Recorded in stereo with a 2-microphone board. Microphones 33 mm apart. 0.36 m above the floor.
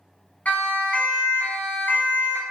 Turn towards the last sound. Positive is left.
turn(degrees=65)  # may be behind; listen again after turning